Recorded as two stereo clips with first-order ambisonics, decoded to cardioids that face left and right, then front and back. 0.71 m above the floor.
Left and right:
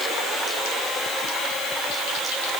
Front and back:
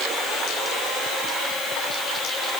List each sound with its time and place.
Only background noise.